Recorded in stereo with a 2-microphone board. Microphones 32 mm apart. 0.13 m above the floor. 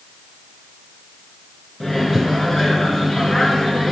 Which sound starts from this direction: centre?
A microwave, at 1.8 s.